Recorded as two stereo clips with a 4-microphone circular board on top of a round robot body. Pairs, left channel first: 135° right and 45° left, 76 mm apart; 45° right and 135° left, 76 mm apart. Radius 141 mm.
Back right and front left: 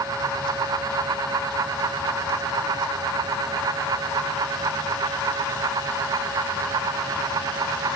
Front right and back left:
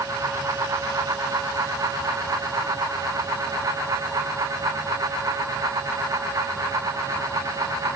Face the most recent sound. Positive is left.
No sound to turn to.